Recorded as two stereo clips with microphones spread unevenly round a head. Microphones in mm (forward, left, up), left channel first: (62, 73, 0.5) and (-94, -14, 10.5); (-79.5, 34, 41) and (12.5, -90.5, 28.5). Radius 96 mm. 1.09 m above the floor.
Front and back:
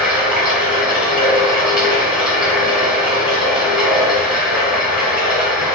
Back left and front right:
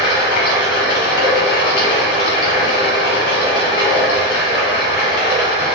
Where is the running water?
125° left, 1.8 m.